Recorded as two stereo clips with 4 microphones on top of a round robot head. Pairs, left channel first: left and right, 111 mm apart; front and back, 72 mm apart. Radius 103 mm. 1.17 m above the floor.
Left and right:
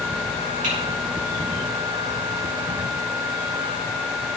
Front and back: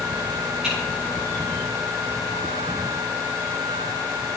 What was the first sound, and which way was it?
Typing on a keyboard, 95° right.